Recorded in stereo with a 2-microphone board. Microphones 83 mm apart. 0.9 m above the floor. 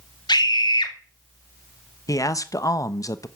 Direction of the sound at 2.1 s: 45° left (ahead or behind).